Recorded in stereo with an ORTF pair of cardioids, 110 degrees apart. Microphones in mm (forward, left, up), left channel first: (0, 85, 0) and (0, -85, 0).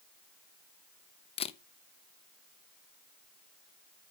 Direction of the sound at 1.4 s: 35° left.